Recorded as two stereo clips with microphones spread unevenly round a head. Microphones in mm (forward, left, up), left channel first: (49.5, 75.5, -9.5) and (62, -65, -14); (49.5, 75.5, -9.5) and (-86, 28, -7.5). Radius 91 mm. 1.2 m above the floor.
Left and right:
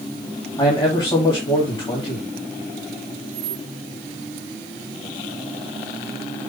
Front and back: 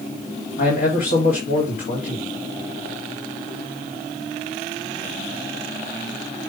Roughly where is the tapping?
No tapping in this recording.